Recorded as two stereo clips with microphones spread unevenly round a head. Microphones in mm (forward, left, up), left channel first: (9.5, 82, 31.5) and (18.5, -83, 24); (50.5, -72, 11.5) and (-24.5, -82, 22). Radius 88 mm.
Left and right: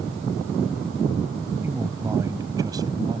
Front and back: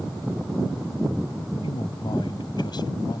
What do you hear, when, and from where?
1.6 s a man speaking: 10° right; by 3.2 s 20° right